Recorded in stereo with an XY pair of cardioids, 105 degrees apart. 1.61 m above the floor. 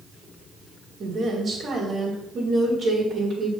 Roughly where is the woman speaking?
Ahead right.